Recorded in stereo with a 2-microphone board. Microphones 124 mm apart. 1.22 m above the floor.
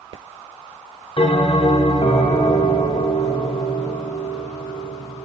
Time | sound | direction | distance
1.2 | a bell | 45° left (ahead or behind) | 6 m